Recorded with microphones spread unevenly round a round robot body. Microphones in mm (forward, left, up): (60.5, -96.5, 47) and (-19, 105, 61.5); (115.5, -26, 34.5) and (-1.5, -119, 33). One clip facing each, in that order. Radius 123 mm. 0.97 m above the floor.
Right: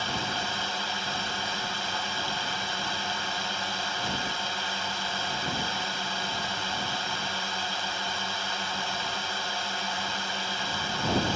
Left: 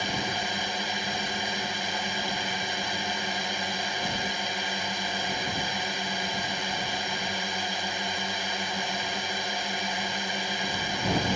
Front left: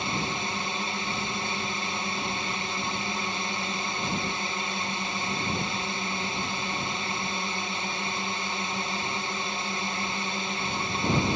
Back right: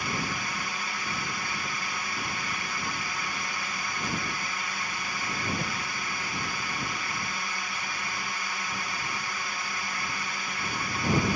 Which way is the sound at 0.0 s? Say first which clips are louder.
Left 2 dB, front left 2 dB; 55° left.